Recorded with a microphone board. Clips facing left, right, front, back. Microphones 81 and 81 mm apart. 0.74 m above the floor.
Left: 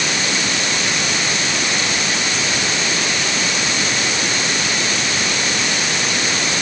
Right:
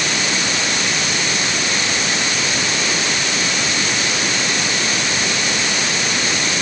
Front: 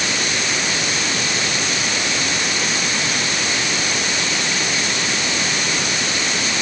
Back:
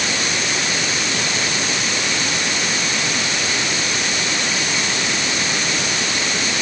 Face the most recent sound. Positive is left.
No sound to turn to.